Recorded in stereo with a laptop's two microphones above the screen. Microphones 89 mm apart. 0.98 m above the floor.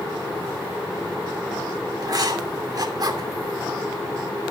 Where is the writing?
50° right (ahead or behind), 2.5 m.